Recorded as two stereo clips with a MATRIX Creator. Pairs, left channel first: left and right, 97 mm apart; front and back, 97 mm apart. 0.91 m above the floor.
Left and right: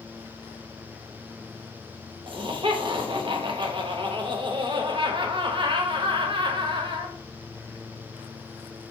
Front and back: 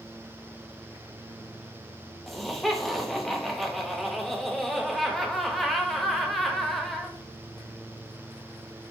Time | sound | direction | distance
2.3 | laughter | 85° right | 0.8 m